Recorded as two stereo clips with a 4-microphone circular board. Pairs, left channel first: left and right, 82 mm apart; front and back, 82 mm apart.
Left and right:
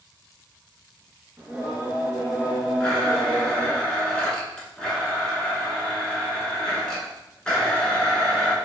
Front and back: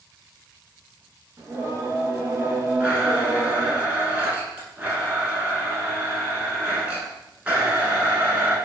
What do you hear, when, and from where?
1.4 s singing: 150° right, 0.6 m
2.8 s a blender: 150° left, 0.8 m